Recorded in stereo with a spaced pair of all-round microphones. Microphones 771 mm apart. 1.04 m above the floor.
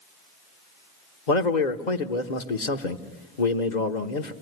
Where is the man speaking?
65° left (ahead or behind), 1.4 m.